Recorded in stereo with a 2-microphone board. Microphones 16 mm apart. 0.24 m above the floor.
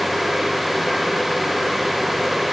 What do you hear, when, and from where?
Only background noise.